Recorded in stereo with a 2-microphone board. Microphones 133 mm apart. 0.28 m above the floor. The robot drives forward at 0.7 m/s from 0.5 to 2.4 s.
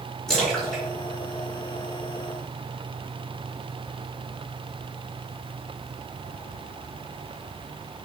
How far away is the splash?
About 3 m.